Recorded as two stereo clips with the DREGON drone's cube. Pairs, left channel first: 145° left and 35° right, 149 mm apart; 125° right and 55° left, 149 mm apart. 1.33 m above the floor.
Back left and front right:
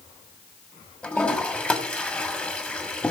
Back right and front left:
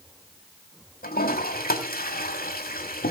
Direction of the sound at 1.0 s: 135° right.